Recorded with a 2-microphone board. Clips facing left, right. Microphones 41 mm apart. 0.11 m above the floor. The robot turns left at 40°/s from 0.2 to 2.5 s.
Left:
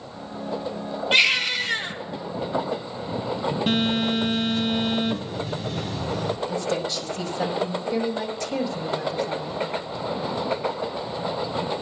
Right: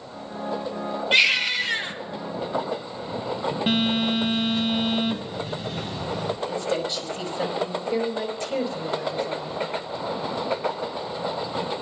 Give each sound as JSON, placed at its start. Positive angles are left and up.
{"t": 1.1, "sound": "a baby crying", "azimuth_deg": -5, "distance_m": 1.9}
{"t": 3.7, "sound": "a phone buzzing", "side_deg": -25, "distance_m": 1.9}
{"t": 6.5, "sound": "a woman speaking", "side_deg": -40, "distance_m": 4.0}